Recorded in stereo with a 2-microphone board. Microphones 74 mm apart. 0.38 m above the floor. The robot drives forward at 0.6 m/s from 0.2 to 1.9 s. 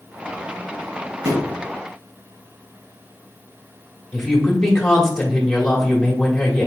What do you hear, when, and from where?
1.2 s a thud: 50° right (ahead or behind), 1.6 m; by 1.6 s 45° right (ahead or behind), 1.8 m
4.1 s a woman speaking: 5° left (ahead or behind), 1.5 m